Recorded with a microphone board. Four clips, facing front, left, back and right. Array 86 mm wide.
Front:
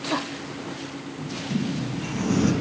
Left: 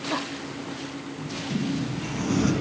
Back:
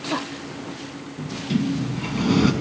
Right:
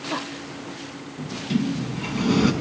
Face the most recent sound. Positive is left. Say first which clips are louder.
# right 5 dB, back 4 dB
turn(degrees=-140)